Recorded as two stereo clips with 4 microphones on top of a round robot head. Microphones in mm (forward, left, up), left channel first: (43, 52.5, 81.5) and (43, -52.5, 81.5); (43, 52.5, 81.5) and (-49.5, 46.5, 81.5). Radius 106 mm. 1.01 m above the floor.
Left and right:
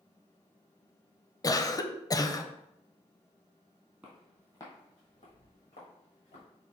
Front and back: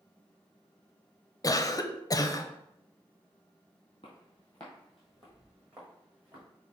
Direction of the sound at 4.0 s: 20° right.